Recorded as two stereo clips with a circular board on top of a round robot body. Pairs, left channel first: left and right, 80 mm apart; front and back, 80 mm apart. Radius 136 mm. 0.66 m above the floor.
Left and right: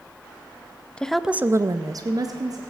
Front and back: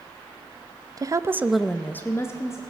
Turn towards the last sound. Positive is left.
turn(degrees=-50)